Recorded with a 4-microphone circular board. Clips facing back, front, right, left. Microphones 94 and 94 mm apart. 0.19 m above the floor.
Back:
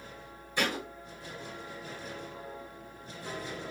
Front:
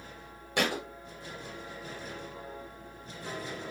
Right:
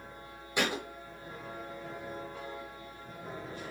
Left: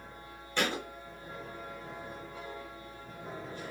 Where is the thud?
10° right, 1.0 m.